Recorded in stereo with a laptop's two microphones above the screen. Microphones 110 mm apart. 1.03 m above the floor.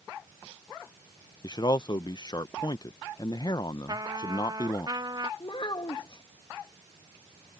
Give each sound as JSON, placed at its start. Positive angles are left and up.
{"t": 1.4, "sound": "a man speaking", "side_deg": 40}
{"t": 3.9, "sound": "a trumpet", "side_deg": -40}
{"t": 5.4, "sound": "a child speaking", "side_deg": 45}